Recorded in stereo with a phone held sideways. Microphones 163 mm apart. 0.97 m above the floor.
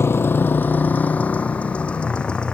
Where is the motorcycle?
15° left (ahead or behind); by 2.5 s 5° left (ahead or behind).